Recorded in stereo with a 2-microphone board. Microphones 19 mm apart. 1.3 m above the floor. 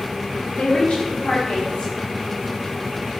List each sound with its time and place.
0.5 s a woman speaking: 75° left (ahead or behind), 0.8 m